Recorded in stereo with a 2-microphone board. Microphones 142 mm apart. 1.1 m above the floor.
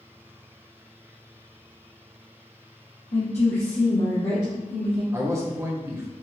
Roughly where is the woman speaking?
Left.